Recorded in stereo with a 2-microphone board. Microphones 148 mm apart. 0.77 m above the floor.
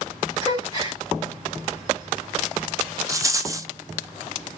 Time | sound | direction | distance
0.4 | a gasp | 30° right (ahead or behind) | 2.5 m
3.1 | a rattle | 20° right (ahead or behind) | 0.6 m